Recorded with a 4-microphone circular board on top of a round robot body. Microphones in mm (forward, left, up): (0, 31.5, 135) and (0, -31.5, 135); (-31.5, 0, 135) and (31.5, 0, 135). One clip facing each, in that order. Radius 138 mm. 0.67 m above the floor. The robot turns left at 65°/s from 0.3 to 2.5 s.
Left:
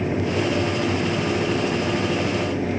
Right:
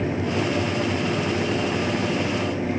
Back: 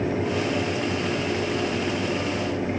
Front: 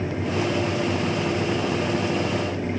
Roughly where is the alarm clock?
I don't hear an alarm clock.